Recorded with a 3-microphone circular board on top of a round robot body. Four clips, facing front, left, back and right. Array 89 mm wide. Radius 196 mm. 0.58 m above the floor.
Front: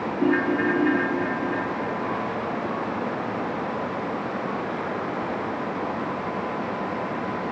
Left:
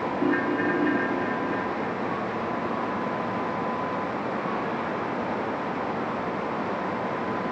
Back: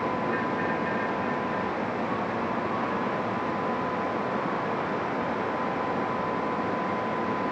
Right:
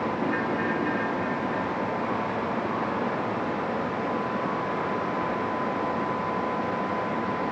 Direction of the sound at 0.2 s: 25° left.